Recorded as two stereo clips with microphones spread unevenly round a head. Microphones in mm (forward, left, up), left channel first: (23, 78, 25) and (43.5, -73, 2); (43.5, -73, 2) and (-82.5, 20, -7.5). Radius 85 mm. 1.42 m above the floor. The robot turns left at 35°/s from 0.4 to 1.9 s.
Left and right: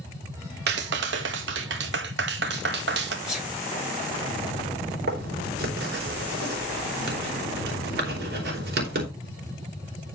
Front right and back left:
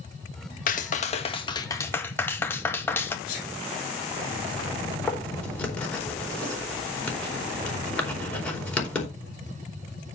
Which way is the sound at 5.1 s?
120° right.